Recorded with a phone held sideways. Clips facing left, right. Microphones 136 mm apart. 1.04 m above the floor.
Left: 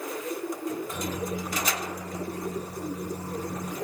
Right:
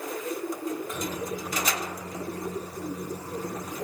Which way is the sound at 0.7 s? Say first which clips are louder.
Even; 35° left (ahead or behind).